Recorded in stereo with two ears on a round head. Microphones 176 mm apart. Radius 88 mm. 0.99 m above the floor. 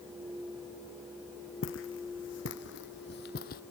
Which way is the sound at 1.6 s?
70° left (ahead or behind).